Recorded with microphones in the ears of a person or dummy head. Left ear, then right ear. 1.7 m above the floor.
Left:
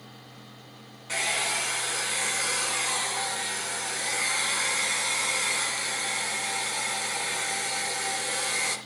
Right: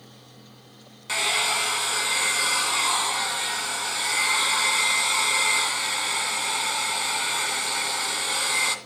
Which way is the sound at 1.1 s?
40° right (ahead or behind).